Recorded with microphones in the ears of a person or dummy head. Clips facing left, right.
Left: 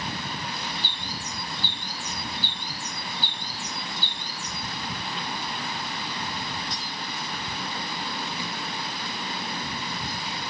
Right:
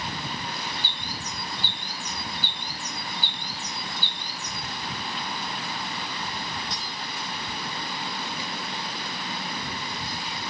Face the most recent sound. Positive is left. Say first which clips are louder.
# even
turn(degrees=-20)  # may be behind; listen again after turning